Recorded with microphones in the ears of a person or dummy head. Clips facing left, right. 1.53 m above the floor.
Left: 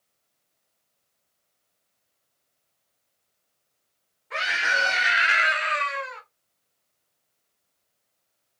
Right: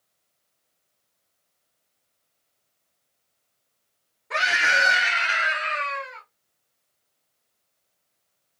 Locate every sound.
4.3 s a scream: 55° right (ahead or behind), 0.8 m; by 6.2 s 65° left (ahead or behind), 1.3 m